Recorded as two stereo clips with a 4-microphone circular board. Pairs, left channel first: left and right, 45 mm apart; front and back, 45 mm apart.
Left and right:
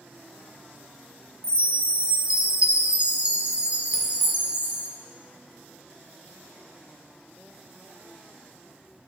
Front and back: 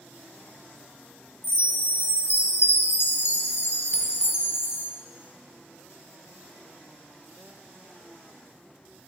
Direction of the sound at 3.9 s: 70° left.